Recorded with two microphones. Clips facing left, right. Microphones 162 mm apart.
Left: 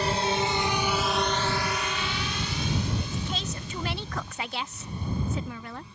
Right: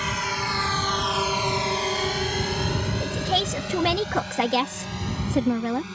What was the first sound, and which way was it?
A drone, 35° left (ahead or behind).